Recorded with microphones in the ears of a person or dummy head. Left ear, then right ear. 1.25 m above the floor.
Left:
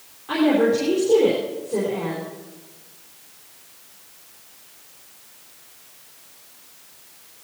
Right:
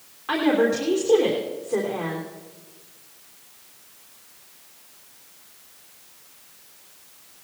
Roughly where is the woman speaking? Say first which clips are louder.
Left 2 dB; right.